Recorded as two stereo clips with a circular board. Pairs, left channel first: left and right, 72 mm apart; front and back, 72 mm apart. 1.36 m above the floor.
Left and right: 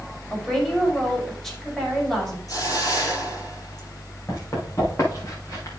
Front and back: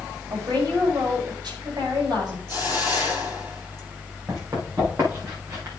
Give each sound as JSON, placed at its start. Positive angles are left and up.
{"t": 0.3, "sound": "a woman speaking", "azimuth_deg": 175, "distance_m": 5.0}
{"t": 2.5, "sound": "a hiss", "azimuth_deg": 125, "distance_m": 6.0}
{"t": 4.3, "sound": "running footsteps", "azimuth_deg": 140, "distance_m": 6.5}